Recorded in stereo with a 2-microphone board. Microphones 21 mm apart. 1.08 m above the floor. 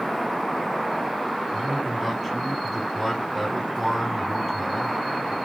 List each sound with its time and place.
1.5 s a man speaking: centre (ahead or behind), 2.5 m